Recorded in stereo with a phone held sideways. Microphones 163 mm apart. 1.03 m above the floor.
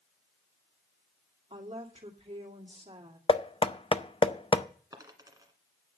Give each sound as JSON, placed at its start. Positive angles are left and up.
{"t": 1.5, "sound": "a woman speaking", "side_deg": -40, "distance_m": 2.5}
{"t": 3.3, "sound": "knocking", "side_deg": 35, "distance_m": 0.5}
{"t": 4.9, "sound": "a dropped coin", "side_deg": -25, "distance_m": 1.7}